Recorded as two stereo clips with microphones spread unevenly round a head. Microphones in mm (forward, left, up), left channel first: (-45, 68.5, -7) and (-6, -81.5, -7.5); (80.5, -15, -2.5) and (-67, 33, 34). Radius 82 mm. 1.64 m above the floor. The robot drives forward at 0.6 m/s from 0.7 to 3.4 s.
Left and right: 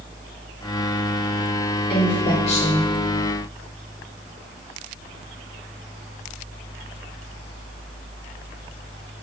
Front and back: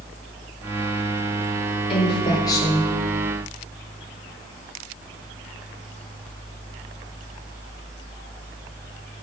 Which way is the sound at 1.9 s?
40° left.